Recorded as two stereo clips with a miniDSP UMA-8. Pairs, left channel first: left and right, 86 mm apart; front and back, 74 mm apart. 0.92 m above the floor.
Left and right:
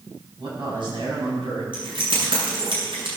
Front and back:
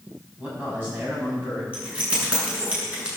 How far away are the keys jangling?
About 6.5 m.